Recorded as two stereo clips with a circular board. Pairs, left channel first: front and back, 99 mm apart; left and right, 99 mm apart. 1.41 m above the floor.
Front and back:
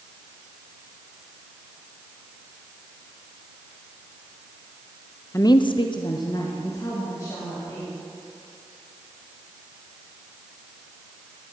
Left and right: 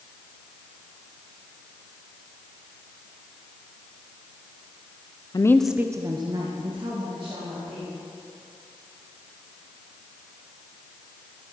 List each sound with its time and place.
5.3 s a woman speaking: 55° left, 0.6 m; by 7.9 s 60° right, 3.5 m